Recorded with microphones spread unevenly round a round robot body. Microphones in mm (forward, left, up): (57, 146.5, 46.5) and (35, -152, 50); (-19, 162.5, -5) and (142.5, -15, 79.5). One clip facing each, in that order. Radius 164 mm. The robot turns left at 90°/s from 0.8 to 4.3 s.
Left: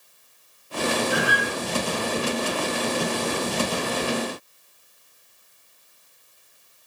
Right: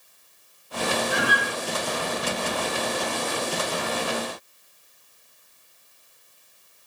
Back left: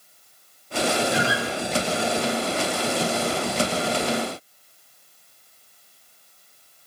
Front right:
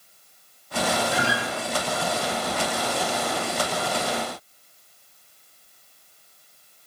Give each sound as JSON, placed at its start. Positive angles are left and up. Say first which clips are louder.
{"t": 1.1, "sound": "a guitar", "louder": "left 2 dB, back left 2 dB", "azimuth_deg": 180, "distance_m": 8.0}